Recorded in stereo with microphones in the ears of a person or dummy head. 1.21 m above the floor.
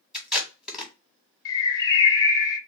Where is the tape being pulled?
Centre (ahead or behind), 1.2 m.